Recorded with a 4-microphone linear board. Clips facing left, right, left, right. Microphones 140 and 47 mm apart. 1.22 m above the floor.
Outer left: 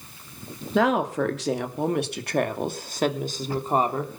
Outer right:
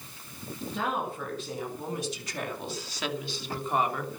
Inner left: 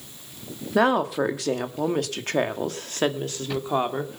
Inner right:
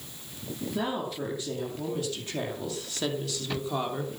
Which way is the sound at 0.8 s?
90° left.